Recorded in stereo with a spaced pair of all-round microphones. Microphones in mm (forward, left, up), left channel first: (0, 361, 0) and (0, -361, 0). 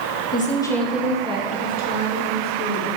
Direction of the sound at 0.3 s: 10° left (ahead or behind).